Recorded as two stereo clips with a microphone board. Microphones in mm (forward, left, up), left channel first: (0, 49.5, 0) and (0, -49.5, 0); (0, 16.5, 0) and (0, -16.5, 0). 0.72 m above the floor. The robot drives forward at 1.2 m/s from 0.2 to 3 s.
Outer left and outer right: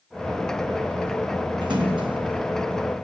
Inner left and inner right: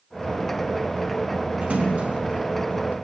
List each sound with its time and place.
1.6 s a splash: 50° right (ahead or behind), 6.5 m; by 3.0 s 60° right (ahead or behind), 5.5 m